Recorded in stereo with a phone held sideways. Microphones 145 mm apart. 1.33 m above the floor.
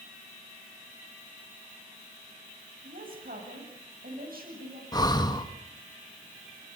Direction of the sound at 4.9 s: 25° left (ahead or behind).